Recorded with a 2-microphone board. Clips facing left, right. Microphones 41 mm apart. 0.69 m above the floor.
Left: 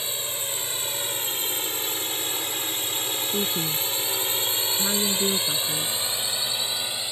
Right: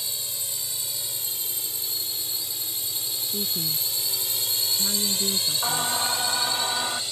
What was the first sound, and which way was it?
A drone, 45° left (ahead or behind).